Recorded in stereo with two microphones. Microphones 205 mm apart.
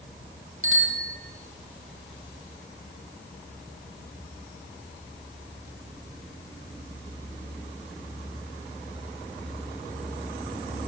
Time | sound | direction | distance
0.6 | a bicycle bell | 85° right | 5 m